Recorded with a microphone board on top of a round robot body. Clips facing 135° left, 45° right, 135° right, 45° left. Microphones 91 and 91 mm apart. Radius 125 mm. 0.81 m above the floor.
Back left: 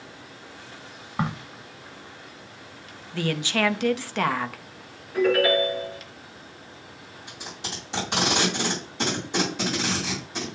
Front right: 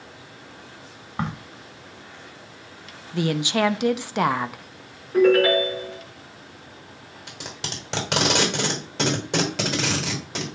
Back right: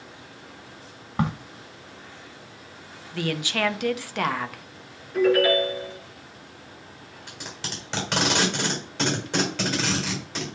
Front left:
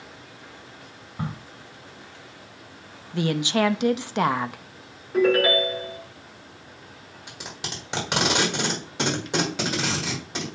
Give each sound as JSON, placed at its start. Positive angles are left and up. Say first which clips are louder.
{"t": 1.2, "sound": "a crack", "louder": "back left 1 dB, back right 6 dB", "azimuth_deg": -140, "distance_m": 0.6}
{"t": 3.1, "sound": "a woman speaking", "louder": "front right 3 dB, front left 5 dB", "azimuth_deg": 5, "distance_m": 0.7}
{"t": 5.1, "sound": "a ringtone", "louder": "front right 4 dB, even", "azimuth_deg": -10, "distance_m": 5.5}
{"t": 7.3, "sound": "tape being pulled", "louder": "front right 2 dB, front left 1 dB", "azimuth_deg": -30, "distance_m": 3.0}